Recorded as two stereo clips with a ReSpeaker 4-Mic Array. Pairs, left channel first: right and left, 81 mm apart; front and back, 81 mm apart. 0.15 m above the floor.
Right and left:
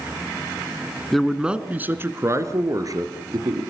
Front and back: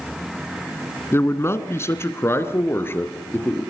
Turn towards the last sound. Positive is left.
turn(degrees=65)